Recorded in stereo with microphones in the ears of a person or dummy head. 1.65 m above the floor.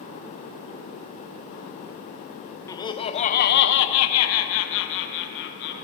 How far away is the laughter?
About 1.6 m.